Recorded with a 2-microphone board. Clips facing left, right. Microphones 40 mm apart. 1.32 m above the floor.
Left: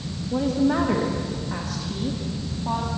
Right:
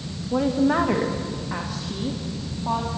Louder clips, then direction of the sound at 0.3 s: Right 1 dB; 30° right (ahead or behind).